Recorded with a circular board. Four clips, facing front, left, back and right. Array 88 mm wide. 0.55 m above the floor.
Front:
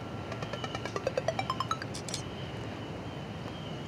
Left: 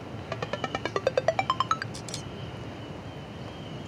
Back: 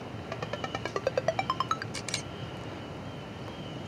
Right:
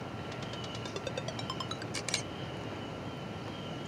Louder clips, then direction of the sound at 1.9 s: Even, back 1 dB; 135° right.